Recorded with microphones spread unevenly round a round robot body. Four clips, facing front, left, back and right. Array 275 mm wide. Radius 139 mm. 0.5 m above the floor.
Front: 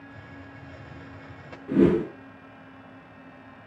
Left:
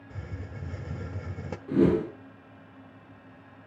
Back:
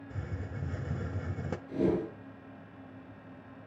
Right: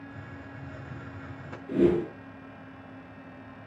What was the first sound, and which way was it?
A hiss, 140° left.